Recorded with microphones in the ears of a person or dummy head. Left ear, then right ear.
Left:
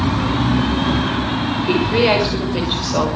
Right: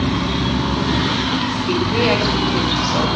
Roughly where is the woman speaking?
Centre.